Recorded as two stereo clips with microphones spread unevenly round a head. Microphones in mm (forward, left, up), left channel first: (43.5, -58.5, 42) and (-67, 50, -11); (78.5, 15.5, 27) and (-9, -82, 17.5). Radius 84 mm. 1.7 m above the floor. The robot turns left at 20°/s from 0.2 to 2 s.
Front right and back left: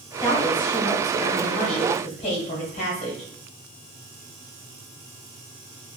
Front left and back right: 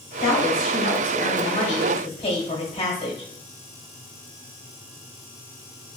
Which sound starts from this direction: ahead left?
A woman speaking, at 0.2 s.